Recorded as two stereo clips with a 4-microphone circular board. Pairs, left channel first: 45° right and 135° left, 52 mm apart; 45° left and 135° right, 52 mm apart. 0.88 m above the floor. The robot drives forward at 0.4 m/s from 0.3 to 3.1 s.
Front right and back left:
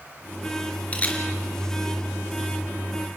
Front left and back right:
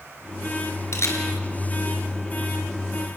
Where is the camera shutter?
20° left, 3.5 m.